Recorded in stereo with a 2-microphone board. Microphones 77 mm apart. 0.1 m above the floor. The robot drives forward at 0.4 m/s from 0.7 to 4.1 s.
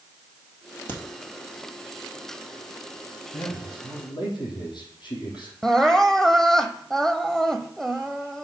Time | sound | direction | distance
0.9 | a crack | 25° left (ahead or behind) | 2 m
3.3 | a man speaking | 70° left (ahead or behind) | 3 m
5.6 | crying | 5° left (ahead or behind) | 0.6 m